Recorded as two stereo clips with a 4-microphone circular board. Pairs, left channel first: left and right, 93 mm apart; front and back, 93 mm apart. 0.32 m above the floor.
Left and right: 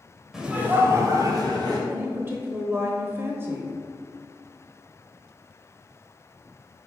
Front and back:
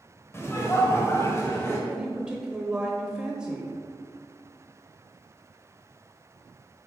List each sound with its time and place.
0.3 s laughter: 10° right, 1.4 m; by 1.8 s 55° right, 3 m
1.9 s a woman speaking: 110° right, 0.9 m